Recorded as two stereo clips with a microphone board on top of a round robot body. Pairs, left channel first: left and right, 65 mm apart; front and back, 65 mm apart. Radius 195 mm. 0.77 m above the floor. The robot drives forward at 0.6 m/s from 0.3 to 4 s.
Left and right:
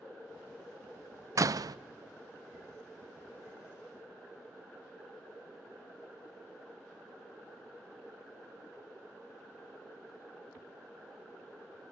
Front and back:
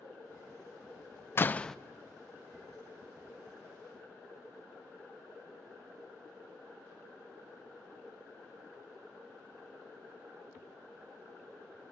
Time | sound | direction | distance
1.4 | a door slam | 55° right | 0.5 m